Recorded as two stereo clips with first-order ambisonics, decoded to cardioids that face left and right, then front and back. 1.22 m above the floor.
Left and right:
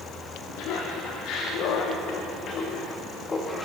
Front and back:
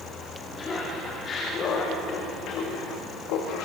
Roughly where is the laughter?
Left.